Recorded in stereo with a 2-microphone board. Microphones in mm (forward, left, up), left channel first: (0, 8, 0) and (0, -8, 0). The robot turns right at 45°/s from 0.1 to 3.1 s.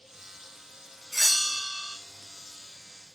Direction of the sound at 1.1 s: 10° right.